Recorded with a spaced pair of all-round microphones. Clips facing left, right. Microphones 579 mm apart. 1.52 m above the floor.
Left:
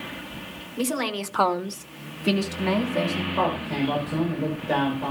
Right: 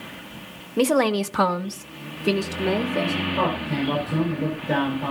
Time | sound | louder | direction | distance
0.8 | a woman speaking | right 8 dB | 80° right | 1.0 m
3.3 | a man speaking | right 1 dB | 45° right (ahead or behind) | 5.5 m